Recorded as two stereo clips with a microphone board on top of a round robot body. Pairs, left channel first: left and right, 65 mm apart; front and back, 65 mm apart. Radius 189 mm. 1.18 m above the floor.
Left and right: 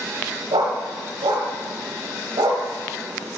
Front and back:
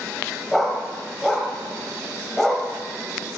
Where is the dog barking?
90° right, 1.5 m.